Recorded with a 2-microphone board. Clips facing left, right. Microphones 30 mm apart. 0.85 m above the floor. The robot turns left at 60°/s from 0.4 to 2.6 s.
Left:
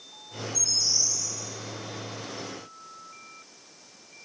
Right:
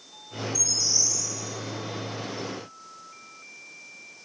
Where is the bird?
65° left, 3.5 m; by 1.3 s 20° left, 3.5 m.